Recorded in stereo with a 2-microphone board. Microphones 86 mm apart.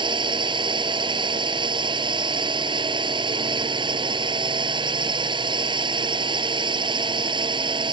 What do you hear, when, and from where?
0.0 s a drone: 65° right (ahead or behind)